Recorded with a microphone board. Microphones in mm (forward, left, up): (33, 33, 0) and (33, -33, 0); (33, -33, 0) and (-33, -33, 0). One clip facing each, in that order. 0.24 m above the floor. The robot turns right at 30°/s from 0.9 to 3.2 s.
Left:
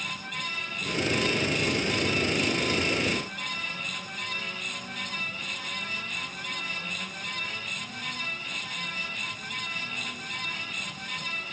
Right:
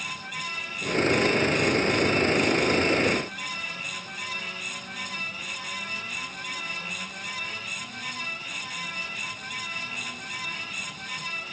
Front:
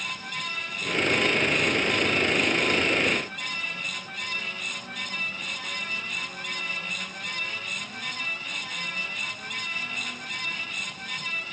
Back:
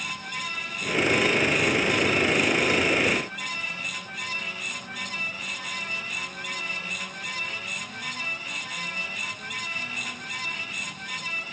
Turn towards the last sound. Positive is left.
No sound to turn to.